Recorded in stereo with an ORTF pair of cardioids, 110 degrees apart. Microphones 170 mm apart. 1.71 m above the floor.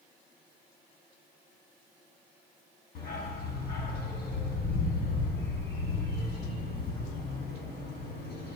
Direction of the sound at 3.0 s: 70° left.